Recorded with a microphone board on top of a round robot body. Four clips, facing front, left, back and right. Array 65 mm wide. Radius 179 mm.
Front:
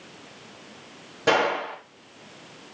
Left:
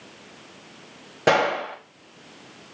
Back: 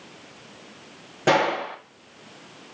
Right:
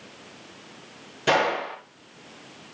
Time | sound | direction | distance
1.3 | a gunshot | 105° left | 1.1 m